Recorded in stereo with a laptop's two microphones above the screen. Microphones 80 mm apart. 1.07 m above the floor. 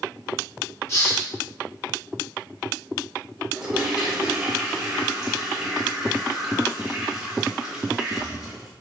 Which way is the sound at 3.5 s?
5° right (ahead or behind).